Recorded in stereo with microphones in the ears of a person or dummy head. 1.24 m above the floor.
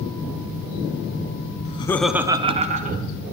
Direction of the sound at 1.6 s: 35° left (ahead or behind).